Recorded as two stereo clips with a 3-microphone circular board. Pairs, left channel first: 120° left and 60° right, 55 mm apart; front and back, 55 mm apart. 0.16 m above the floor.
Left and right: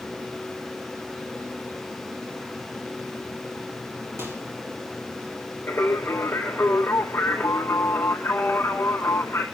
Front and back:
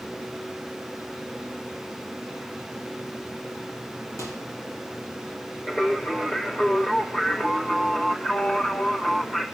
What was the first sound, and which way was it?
A microwave, 25° right.